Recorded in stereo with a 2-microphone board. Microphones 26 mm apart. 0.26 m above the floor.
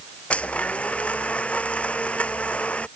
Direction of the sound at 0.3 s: 55° left (ahead or behind).